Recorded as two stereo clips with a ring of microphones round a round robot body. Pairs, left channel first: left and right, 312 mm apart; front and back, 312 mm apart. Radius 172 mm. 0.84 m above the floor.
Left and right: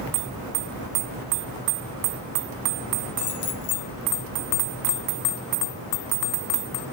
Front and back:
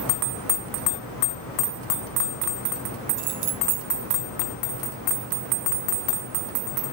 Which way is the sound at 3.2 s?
150° left.